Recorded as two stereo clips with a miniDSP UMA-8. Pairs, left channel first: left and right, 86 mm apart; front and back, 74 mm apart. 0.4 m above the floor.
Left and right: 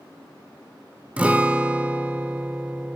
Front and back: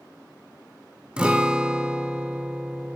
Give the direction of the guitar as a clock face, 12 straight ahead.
4 o'clock.